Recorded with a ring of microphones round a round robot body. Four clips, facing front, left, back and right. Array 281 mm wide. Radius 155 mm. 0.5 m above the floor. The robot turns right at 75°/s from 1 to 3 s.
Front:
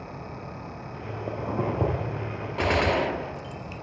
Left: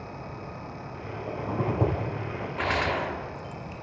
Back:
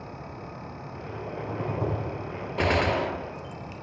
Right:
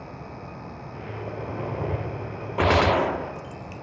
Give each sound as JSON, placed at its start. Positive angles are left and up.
{"t": 1.3, "sound": "a zipper", "azimuth_deg": 0, "distance_m": 9.5}
{"t": 2.6, "sound": "a gunshot", "azimuth_deg": -105, "distance_m": 0.8}